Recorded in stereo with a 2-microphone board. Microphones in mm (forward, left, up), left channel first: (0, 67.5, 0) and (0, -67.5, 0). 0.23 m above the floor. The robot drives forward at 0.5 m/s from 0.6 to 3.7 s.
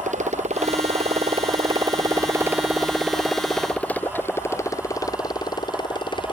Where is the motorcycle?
65° right (ahead or behind); by 6.3 s 35° left (ahead or behind).